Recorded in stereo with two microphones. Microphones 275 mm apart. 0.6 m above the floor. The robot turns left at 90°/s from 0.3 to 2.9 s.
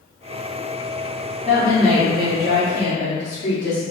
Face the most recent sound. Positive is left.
turn(degrees=95)